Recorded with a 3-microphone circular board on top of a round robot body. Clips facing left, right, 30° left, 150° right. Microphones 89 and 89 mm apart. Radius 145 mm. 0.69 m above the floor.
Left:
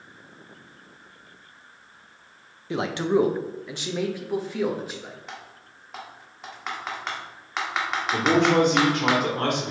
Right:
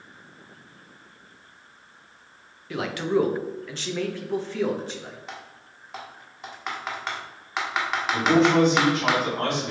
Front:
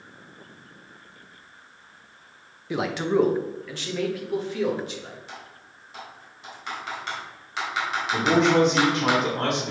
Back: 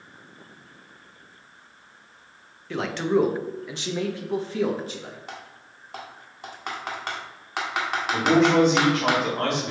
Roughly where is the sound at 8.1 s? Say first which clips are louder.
Right 1 dB, back 1 dB; behind left.